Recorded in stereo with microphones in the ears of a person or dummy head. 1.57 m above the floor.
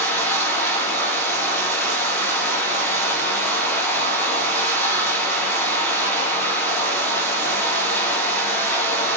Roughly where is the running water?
Centre.